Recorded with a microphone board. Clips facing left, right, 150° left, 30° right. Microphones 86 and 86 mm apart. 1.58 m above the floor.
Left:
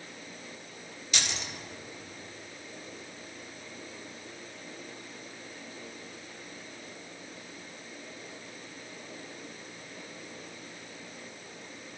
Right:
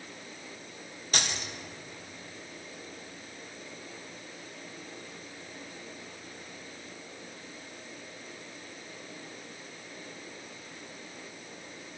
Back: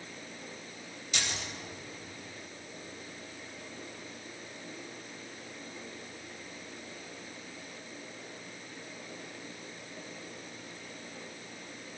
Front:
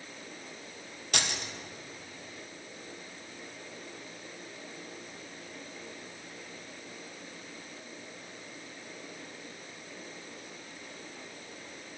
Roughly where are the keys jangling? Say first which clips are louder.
Right 2 dB, front 3 dB; ahead right.